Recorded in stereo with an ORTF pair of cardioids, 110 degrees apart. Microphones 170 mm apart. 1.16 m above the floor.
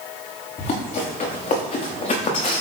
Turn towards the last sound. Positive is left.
turn(degrees=45)